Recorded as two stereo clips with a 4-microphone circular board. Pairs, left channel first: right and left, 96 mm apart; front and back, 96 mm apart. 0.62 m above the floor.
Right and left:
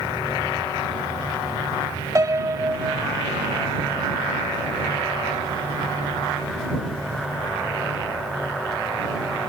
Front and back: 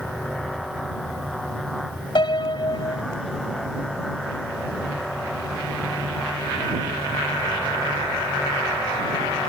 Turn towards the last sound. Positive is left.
turn(degrees=35)